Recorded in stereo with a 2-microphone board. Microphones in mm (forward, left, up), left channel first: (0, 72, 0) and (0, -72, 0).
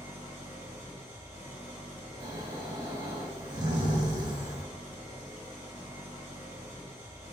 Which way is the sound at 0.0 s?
15° right (ahead or behind).